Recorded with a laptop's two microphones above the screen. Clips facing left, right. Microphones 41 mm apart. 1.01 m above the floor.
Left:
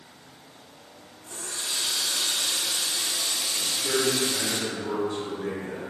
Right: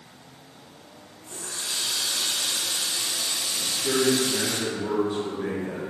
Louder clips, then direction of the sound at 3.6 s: Right 2 dB; 20° right (ahead or behind).